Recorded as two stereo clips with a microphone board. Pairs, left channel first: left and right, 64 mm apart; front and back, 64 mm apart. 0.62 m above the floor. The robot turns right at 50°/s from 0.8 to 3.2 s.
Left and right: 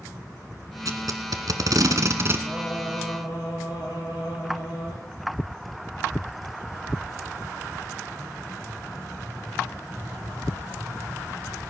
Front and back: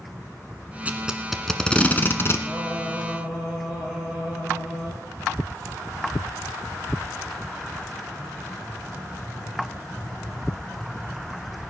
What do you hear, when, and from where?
0.8 s tape being pulled: 115° right, 1.1 m; by 2.4 s 40° right, 1.1 m
2.5 s singing: 40° left, 8.5 m; by 5.0 s 80° left, 8.5 m